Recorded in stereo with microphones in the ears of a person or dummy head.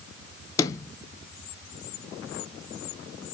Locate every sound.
0.6 s a sliding door: 20° left (ahead or behind), 0.6 m